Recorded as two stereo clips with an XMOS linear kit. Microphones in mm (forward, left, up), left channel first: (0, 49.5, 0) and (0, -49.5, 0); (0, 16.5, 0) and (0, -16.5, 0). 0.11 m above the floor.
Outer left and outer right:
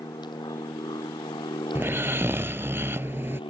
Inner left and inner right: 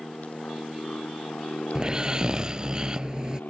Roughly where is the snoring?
Right.